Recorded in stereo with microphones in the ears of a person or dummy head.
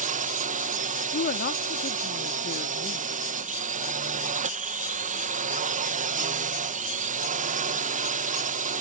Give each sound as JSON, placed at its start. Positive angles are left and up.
{"t": 0.0, "sound": "a drone", "side_deg": -35}
{"t": 1.1, "sound": "a woman speaking", "side_deg": 45}